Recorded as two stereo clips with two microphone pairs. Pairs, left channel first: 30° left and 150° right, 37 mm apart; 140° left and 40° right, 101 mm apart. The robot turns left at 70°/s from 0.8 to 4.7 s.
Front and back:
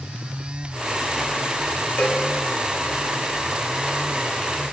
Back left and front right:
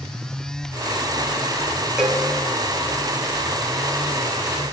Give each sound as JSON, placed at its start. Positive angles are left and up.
{"t": 2.0, "sound": "a cowbell", "azimuth_deg": 45, "distance_m": 4.5}